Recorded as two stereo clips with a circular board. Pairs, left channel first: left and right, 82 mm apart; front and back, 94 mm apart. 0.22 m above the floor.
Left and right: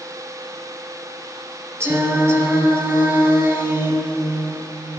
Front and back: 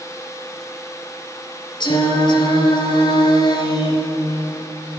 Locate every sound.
1.8 s singing: 35° right, 2.5 m